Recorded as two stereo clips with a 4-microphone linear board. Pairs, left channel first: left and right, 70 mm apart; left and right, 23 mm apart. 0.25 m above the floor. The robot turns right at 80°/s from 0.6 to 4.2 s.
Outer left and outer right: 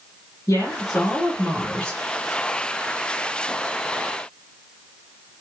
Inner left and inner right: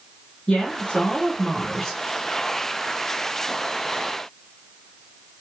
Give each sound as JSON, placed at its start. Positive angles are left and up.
{"t": 0.5, "sound": "a woman speaking", "azimuth_deg": 65, "distance_m": 3.0}